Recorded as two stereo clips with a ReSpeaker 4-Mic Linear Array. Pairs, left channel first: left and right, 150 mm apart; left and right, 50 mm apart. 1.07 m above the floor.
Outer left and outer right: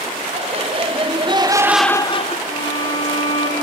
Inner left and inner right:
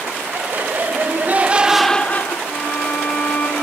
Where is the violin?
45° left (ahead or behind), 9 m.